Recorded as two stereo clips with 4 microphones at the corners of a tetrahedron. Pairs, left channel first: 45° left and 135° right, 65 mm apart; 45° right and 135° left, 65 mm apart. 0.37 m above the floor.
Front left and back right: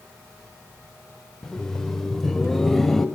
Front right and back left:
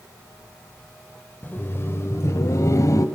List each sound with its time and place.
1.4 s laughter: 25° right, 1.0 m; by 3.0 s 40° right, 1.7 m